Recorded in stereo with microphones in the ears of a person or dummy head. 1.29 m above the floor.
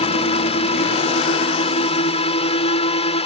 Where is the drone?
35° left (ahead or behind).